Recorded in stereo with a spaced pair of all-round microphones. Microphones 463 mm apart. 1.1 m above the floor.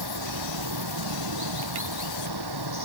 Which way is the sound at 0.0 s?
55° right (ahead or behind).